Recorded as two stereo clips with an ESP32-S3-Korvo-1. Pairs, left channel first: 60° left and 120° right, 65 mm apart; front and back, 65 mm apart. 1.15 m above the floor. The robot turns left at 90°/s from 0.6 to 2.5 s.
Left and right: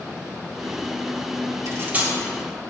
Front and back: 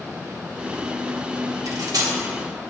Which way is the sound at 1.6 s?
155° right.